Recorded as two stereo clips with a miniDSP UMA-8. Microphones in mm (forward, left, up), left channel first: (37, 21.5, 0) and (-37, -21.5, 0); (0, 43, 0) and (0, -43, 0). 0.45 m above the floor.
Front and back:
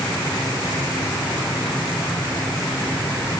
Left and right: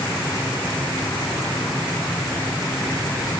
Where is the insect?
50° left, 1.6 m.